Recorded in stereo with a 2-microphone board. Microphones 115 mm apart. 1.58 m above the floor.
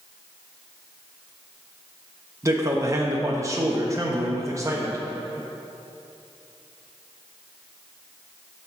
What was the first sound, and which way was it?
A man speaking, 25° right (ahead or behind).